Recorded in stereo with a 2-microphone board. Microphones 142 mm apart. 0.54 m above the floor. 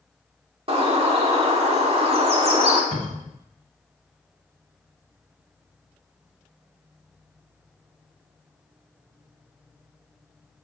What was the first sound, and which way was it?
A bird, 45° right (ahead or behind).